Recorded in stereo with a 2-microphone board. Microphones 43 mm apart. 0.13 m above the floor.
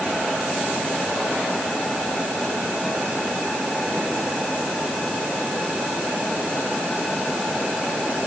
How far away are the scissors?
I don't hear scissors.